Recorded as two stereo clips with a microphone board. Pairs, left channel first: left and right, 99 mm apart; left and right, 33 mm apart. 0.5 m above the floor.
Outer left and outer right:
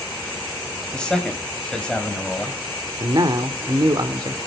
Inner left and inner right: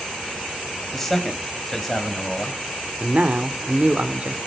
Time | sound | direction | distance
0.9 | a man speaking | 10° left (ahead or behind) | 2.5 m
3.0 | a man speaking | 45° right (ahead or behind) | 1.2 m